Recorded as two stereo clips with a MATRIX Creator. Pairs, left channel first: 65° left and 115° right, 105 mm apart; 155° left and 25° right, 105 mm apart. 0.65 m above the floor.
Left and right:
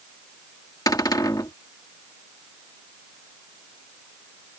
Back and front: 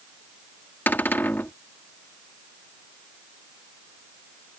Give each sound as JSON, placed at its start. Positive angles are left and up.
{"t": 0.9, "sound": "a cupboard door", "azimuth_deg": 95}